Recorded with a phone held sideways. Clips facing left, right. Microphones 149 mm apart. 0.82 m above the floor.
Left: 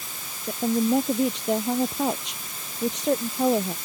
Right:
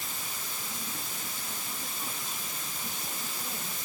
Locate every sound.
0.5 s a woman speaking: 90° left